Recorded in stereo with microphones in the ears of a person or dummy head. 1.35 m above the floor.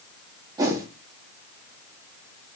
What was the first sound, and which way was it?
A whoosh, 20° right (ahead or behind).